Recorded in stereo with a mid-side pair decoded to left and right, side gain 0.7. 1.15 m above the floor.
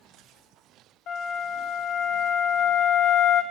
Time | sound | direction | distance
1.1 | a flute | 55° left | 1.0 m